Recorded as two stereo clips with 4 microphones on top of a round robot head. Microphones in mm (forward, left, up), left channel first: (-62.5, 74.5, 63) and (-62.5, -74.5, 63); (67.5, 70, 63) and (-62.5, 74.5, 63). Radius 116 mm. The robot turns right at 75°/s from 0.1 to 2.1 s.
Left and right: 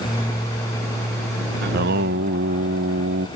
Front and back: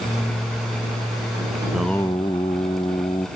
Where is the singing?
110° right; by 3.3 s 70° right.